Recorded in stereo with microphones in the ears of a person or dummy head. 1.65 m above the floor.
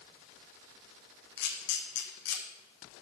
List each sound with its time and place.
1.4 s a camera shutter: 60° left (ahead or behind), 1.5 m